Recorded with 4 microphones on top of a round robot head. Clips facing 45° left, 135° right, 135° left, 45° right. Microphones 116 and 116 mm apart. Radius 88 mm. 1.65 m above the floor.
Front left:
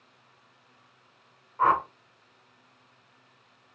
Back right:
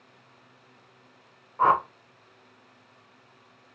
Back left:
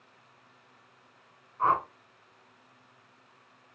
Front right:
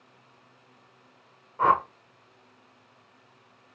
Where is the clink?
No clink in this recording.